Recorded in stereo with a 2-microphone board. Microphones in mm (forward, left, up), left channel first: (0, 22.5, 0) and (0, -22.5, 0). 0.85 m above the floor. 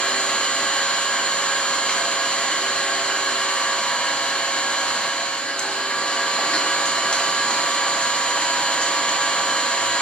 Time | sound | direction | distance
0.0 | an engine running | 20° left (ahead or behind) | 0.9 m